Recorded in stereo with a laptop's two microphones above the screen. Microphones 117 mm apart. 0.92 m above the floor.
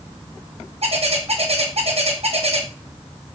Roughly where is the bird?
Right.